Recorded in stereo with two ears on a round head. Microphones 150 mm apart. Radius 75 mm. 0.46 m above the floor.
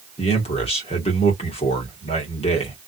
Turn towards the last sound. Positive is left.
turn(degrees=35)  # may be behind; listen again after turning